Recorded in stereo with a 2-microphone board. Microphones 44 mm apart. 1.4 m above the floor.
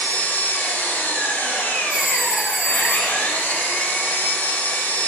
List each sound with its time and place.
0.0 s an engine running: 55° left (ahead or behind), 1.0 m
1.9 s a phone ringing: centre (ahead or behind), 1.4 m